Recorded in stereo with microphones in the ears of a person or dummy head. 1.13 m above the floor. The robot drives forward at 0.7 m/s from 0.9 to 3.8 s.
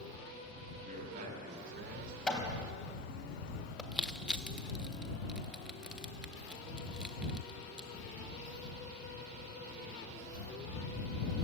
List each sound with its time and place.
0.8 s a man speaking: 50° right (ahead or behind), 6.5 m; by 2.2 s 60° right (ahead or behind), 6 m
2.3 s hammering: centre (ahead or behind), 3 m; by 3.8 s 5° left (ahead or behind), 2 m
3.9 s crushing: centre (ahead or behind), 0.8 m